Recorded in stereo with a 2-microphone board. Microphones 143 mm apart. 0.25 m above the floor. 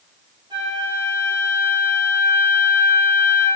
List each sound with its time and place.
0.5 s a flute: 30° right (ahead or behind), 5 m